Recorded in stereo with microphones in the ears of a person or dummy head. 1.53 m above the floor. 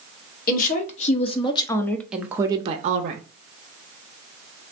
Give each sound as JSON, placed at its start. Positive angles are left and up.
{"t": 0.5, "sound": "a woman speaking", "side_deg": 45, "distance_m": 1.1}